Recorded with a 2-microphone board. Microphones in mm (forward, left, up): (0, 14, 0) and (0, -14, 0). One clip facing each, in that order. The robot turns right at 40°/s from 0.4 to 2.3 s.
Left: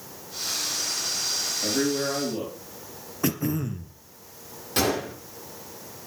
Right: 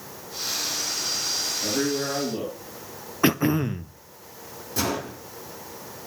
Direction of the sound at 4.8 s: 70° left (ahead or behind).